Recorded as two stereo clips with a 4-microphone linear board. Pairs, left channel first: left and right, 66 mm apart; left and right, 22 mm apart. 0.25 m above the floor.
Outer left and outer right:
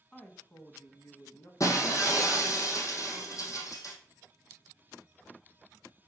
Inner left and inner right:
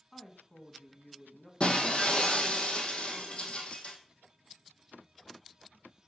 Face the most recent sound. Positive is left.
turn(degrees=55)  # may be behind; listen again after turning